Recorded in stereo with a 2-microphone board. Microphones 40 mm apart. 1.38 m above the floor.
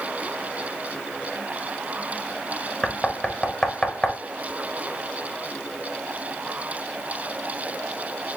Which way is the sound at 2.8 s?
20° left (ahead or behind).